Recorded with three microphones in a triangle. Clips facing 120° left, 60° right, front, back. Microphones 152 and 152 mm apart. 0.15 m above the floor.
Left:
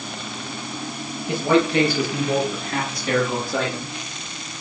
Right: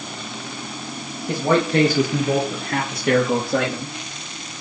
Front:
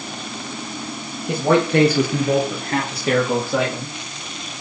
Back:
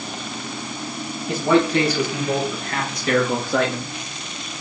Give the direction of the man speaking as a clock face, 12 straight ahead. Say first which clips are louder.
Even, front 1 dB; 1 o'clock.